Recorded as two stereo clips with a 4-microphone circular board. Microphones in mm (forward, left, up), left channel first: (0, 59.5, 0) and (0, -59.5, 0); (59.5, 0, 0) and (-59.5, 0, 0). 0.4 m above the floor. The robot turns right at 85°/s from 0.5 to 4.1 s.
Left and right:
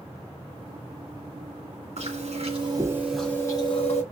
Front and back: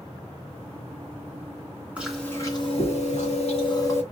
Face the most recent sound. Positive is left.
turn(degrees=80)